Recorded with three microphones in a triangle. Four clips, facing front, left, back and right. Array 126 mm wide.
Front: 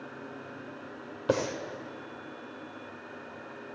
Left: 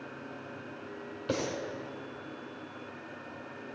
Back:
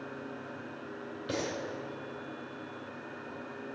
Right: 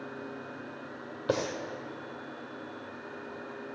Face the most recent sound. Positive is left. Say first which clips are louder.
# right 2 dB, front 7 dB
turn(degrees=-25)